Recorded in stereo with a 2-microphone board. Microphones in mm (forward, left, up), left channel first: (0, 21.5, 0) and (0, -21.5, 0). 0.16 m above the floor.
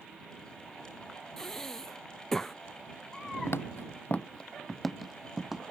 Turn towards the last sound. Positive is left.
turn(degrees=-5)  # may be behind; listen again after turning